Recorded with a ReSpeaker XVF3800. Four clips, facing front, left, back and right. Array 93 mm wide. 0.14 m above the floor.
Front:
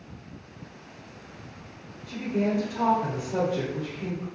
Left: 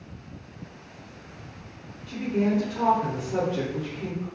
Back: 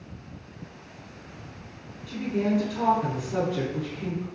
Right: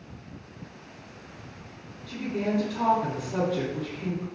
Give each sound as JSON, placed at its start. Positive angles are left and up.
{"t": 2.1, "sound": "a woman speaking", "azimuth_deg": 145, "distance_m": 1.5}